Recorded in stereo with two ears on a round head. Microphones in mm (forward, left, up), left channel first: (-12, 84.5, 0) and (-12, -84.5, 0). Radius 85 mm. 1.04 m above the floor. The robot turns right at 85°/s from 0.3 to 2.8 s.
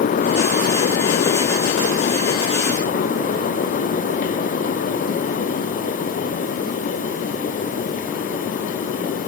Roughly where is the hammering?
I don't hear hammering.